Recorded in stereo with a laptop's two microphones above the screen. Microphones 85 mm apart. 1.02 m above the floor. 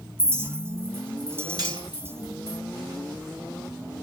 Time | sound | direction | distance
0.2 | a clink | 30° right (ahead or behind) | 1.7 m
1.6 | cutlery clinking | 50° right (ahead or behind) | 4.5 m